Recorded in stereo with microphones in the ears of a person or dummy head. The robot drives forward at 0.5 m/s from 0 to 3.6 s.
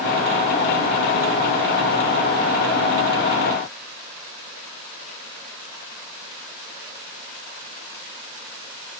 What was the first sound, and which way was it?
Only background noise.